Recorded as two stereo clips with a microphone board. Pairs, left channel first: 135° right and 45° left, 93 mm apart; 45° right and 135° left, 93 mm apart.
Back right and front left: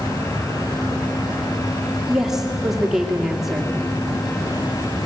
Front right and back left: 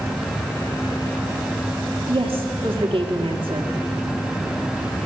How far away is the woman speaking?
About 2 m.